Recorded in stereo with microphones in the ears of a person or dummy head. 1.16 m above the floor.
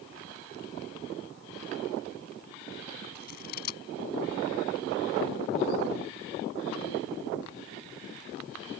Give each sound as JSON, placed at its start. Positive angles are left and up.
{"t": 3.1, "sound": "scissors", "side_deg": 50}